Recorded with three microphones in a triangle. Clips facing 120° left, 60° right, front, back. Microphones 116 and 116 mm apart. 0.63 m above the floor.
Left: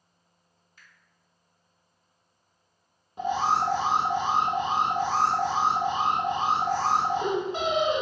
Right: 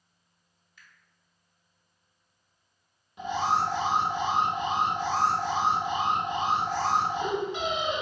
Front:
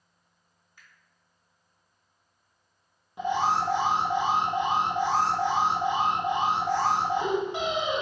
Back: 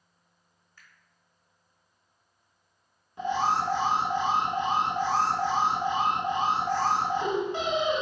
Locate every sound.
0.8 s a finger snap: 75° left, 1.3 m
3.2 s an alarm: 70° left, 0.8 m